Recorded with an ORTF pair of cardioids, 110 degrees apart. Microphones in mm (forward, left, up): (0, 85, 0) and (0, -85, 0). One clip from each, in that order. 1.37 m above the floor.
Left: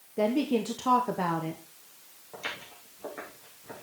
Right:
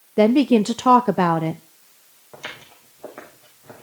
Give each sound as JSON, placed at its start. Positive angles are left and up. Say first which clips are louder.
{"t": 0.2, "sound": "a woman speaking", "louder": "right 11 dB", "azimuth_deg": -55, "distance_m": 0.6}
{"t": 2.3, "sound": "footsteps", "louder": "right 1 dB", "azimuth_deg": -30, "distance_m": 5.5}